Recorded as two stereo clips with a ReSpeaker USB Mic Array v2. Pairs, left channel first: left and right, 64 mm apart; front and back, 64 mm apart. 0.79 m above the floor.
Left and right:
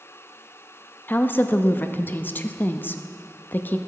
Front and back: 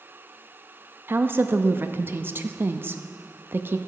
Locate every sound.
1.1 s a woman speaking: 140° left, 0.5 m